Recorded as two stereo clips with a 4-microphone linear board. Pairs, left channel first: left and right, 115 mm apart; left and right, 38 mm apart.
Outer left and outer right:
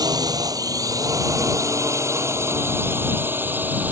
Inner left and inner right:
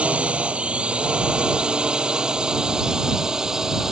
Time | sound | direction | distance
0.0 | a drone | 35° right (ahead or behind) | ?